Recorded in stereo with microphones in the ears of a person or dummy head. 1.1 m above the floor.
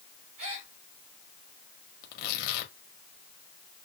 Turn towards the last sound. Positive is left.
turn(degrees=70)  # may be behind; listen again after turning